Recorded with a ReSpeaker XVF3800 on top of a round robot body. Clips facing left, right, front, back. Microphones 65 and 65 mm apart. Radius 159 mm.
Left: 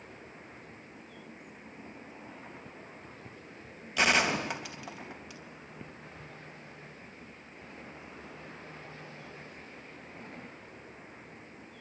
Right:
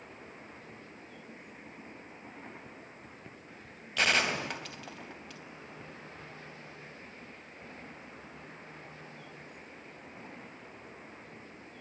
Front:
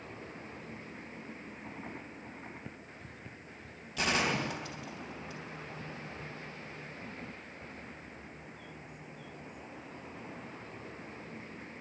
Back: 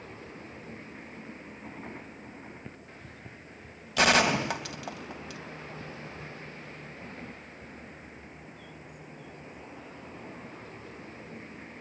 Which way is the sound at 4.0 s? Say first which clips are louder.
Left 2 dB, back 8 dB; 170° left.